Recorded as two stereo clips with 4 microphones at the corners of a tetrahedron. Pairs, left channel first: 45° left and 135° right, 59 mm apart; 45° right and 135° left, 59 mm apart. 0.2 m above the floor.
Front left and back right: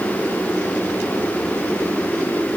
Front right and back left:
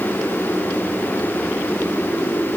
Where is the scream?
No scream in this recording.